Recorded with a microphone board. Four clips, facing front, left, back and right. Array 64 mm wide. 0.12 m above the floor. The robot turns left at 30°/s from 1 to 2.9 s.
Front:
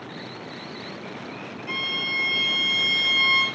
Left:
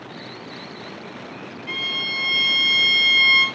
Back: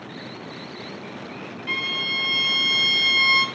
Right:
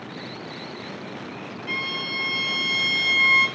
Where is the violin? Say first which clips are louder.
Left 1 dB, back 2 dB; 170° left, 0.6 m; by 3.5 s 135° left, 0.6 m.